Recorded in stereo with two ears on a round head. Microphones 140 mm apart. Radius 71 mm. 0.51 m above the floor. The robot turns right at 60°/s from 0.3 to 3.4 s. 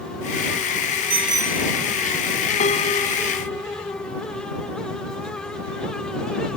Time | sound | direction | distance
1.1 | a bicycle bell | 40° right | ?
2.6 | a piano | 125° left | ?